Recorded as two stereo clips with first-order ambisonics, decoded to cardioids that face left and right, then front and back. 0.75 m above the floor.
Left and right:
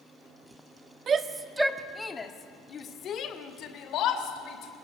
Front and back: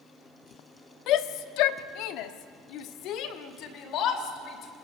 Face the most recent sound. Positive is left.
turn(degrees=50)